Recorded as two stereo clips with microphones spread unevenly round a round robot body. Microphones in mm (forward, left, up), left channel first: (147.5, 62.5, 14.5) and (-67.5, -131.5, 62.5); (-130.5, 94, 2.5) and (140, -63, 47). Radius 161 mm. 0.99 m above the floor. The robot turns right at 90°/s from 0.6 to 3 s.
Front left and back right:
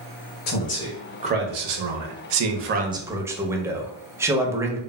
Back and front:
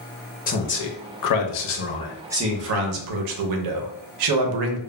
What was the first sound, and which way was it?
A man speaking, 90° left.